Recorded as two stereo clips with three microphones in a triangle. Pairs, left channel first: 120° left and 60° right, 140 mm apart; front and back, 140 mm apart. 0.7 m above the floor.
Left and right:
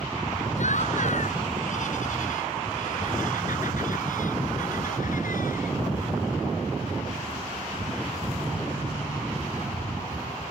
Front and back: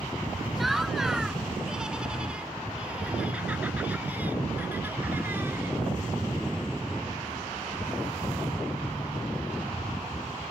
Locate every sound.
0.6 s laughter: 90° left; by 5.8 s 105° left